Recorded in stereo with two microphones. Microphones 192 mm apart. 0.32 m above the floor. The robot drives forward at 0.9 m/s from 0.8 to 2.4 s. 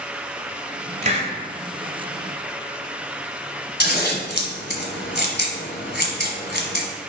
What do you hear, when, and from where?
1.0 s a hiss: 40° right (ahead or behind), 1.6 m; by 1.3 s 35° right (ahead or behind), 1.7 m
3.8 s scissors: 55° left (ahead or behind), 1.5 m